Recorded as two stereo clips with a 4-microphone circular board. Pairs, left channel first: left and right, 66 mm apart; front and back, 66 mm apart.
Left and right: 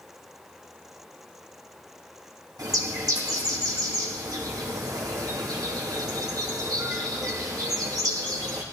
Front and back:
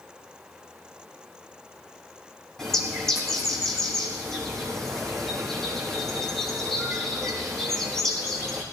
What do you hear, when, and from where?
2.6 s a bird: 85° right, 4.5 m